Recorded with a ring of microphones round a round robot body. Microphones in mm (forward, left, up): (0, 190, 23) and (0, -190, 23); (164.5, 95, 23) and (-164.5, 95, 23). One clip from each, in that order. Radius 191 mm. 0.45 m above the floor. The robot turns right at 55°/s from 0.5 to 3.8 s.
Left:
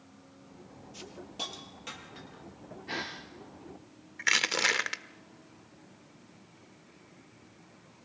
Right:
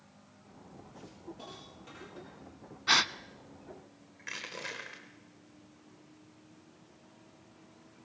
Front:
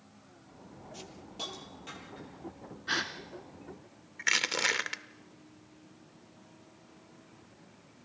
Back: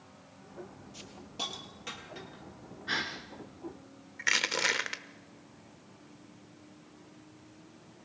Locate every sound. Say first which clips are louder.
0.9 s a hiss: left 10 dB, back 3 dB; 85° left, 4.5 m; by 2.4 s 165° left, 4.5 m
2.9 s a gasp: right 11 dB, front 1 dB; 80° right, 0.9 m; by 3.1 s 65° right, 0.9 m
4.2 s crushing: left 14 dB, even; 75° left, 1.1 m